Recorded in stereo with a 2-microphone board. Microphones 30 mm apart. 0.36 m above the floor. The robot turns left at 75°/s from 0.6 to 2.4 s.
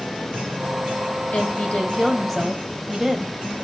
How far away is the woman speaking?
About 2 m.